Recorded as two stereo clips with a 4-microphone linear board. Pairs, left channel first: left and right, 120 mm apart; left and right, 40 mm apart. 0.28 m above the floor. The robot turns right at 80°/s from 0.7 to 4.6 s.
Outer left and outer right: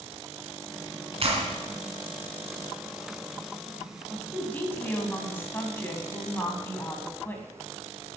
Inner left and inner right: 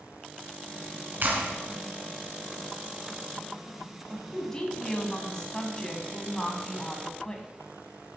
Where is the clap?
55° right (ahead or behind), 2.5 m; by 1.5 s 70° right (ahead or behind), 2.5 m.